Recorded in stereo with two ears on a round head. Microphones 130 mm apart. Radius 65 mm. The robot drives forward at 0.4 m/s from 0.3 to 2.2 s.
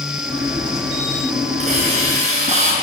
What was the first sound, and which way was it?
A hiss, 45° right (ahead or behind).